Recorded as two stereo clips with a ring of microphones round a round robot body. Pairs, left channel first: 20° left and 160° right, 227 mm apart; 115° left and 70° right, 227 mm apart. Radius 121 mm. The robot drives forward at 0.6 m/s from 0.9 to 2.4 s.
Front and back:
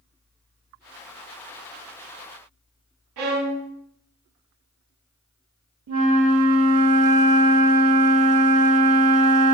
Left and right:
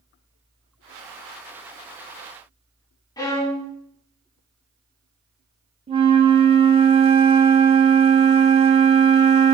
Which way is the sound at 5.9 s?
135° right.